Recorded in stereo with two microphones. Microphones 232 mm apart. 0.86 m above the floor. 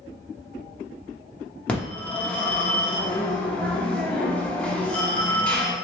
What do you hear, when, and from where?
1.7 s a phone ringing: 5° left (ahead or behind), 1.0 m